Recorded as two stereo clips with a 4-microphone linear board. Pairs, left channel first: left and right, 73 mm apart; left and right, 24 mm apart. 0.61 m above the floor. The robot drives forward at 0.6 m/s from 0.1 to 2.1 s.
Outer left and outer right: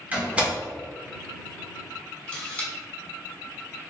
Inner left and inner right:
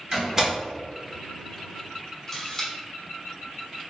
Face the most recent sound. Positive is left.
turn(degrees=15)  # may be behind; listen again after turning